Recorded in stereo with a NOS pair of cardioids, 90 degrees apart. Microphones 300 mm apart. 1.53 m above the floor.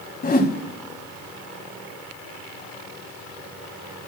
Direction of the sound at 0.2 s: 30° left.